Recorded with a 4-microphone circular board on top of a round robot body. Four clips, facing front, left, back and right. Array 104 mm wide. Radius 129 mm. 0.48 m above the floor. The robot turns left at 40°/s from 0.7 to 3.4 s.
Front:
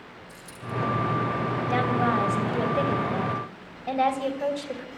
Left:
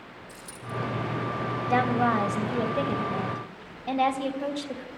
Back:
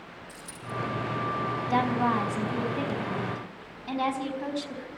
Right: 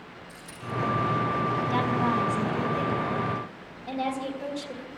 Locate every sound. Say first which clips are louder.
0.3 s a dropped coin: right 2 dB, front 3 dB; 100° left, 3.5 m
1.7 s a woman speaking: left 5 dB, front 1 dB; 75° left, 3 m; by 4.9 s 10° left, 3 m